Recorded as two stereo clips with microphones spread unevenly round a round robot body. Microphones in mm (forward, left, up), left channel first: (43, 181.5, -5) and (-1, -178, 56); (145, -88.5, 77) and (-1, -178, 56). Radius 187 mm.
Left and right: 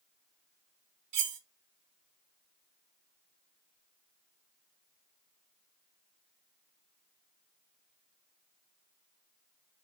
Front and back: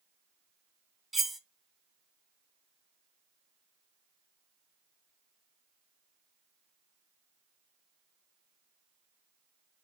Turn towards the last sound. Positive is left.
turn(degrees=-65)